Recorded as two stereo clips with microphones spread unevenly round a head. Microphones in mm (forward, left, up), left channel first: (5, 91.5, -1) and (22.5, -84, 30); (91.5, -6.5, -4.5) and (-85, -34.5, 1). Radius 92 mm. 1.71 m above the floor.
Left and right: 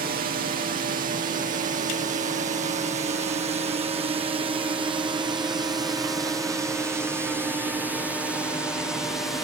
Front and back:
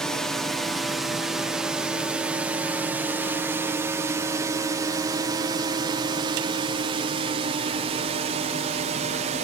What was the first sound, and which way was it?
A drone, 75° right.